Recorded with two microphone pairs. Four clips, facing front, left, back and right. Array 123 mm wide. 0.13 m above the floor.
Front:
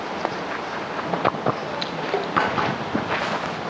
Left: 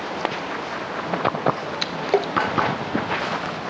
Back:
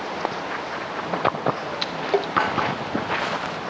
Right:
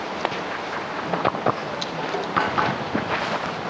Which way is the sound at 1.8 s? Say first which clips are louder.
Left 8 dB, back 4 dB; 100° left.